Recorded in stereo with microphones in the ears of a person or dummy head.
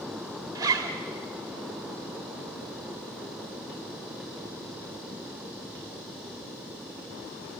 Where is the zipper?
15° right (ahead or behind), 1.8 m.